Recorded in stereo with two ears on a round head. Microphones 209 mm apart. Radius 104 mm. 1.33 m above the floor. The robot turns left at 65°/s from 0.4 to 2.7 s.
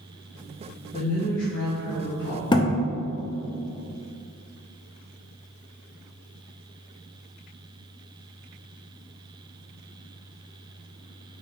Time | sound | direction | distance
0.9 | a woman speaking | 155° left | 0.9 m
2.5 | a thud | 20° left (ahead or behind) | 0.6 m